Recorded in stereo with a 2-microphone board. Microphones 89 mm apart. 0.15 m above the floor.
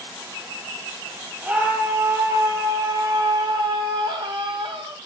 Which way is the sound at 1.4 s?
15° right (ahead or behind).